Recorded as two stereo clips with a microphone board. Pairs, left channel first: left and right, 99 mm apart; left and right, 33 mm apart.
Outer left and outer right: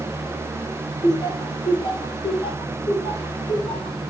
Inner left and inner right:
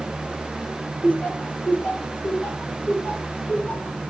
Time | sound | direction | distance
1.0 | laughter | 40° left (ahead or behind) | 2.5 m